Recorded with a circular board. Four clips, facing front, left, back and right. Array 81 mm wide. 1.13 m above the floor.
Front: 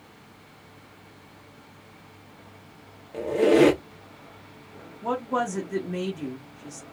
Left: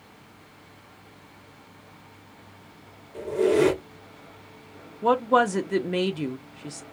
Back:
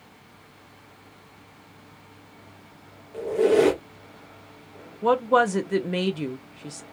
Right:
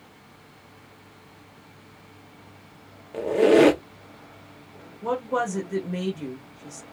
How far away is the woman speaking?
About 0.6 m.